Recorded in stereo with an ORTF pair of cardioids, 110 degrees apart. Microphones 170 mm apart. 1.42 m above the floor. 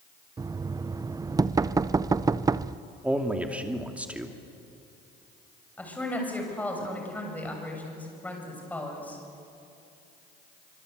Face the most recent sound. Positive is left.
turn(degrees=10)